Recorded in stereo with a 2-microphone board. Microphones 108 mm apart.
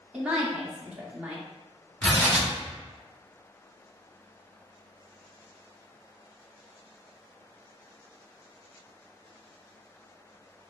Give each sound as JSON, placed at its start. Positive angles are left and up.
{"t": 0.1, "sound": "a woman speaking", "side_deg": -5, "distance_m": 0.5}
{"t": 2.0, "sound": "tearing paper", "side_deg": 20, "distance_m": 1.0}